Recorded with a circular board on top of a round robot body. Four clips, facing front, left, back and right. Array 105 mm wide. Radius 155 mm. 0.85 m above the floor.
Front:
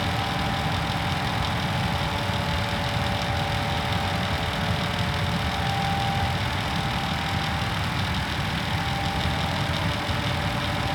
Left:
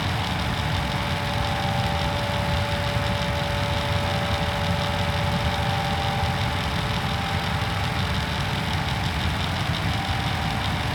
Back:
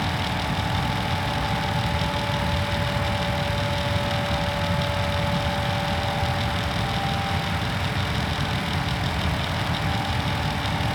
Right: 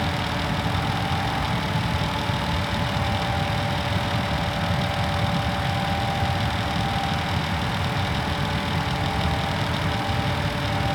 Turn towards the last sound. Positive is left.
No sound to turn to.